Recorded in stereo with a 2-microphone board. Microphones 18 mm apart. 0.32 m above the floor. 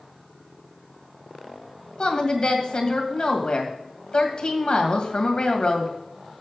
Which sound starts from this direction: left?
A woman speaking, at 2.0 s.